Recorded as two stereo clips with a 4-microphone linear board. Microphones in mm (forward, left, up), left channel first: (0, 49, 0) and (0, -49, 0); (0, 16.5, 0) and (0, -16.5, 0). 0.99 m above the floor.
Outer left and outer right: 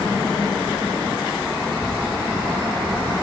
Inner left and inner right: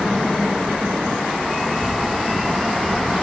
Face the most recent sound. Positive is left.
turn(degrees=-80)